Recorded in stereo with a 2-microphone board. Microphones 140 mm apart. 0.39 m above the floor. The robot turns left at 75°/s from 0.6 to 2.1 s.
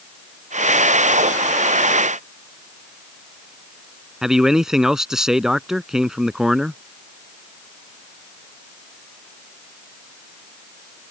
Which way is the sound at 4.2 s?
5° right (ahead or behind).